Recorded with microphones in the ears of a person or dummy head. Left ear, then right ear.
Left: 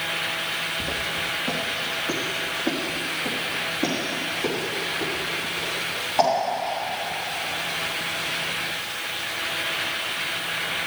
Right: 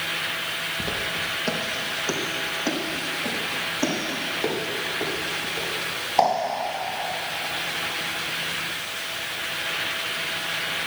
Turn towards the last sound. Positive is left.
turn(degrees=-70)  # may be behind; listen again after turning